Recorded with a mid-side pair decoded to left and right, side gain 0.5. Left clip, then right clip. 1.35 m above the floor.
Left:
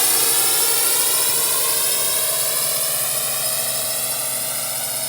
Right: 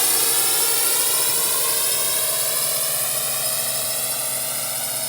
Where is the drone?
10° left; by 5.1 s 5° left.